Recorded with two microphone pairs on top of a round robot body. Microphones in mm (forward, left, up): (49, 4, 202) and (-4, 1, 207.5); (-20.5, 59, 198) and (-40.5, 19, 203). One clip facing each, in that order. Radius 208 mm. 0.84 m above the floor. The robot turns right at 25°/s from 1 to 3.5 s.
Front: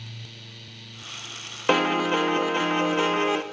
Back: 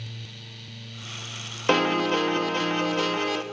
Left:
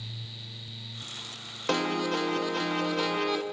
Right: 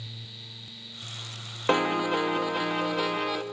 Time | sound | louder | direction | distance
1.7 | a piano | even, right 3 dB | 60° right | 0.6 m